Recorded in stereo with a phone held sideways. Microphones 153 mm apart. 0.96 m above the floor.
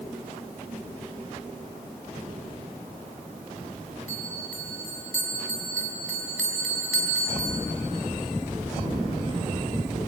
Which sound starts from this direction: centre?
A bell, at 4.1 s.